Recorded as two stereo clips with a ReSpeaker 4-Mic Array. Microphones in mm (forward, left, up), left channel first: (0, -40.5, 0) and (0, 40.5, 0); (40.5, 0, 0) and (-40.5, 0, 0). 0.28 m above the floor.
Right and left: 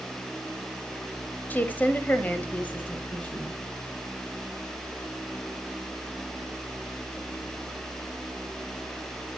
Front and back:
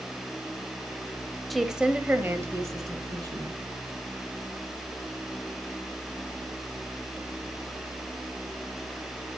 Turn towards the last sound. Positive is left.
turn(degrees=-160)